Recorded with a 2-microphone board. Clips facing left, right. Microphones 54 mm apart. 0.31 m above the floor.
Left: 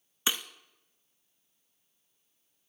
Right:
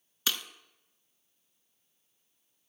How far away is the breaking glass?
About 0.7 m.